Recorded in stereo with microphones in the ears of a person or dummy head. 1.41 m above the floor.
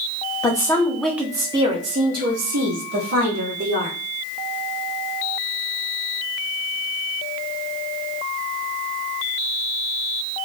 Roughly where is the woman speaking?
Left.